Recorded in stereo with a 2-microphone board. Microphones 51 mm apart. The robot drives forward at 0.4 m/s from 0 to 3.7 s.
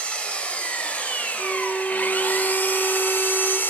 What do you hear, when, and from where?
0.0 s an engine running: 20° left (ahead or behind), 1.9 m; by 3.7 s 45° left (ahead or behind), 1.0 m
1.4 s a violin: 15° left (ahead or behind), 0.6 m; by 3.6 s 10° left (ahead or behind), 0.9 m